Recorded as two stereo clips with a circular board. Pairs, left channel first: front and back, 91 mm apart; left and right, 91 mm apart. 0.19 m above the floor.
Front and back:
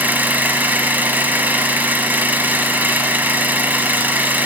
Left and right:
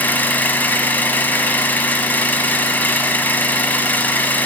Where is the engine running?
135° left, 0.7 m.